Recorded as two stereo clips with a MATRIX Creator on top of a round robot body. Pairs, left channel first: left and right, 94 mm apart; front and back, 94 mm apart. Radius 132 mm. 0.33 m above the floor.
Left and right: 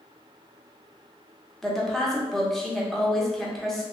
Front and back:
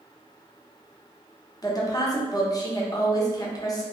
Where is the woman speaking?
5° left, 1.1 m.